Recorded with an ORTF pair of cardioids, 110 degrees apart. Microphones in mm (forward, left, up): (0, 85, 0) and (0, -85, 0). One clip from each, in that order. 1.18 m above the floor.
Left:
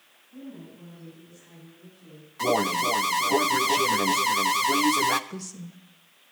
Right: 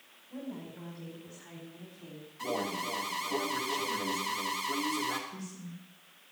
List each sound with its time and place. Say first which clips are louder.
0.3 s a woman speaking: right 1 dB; 65° right, 5.5 m; by 2.3 s 55° right, 3.5 m
2.4 s an alarm: left 11 dB; 60° left, 0.8 m
5.3 s a woman speaking: left 5 dB; 70° left, 1.5 m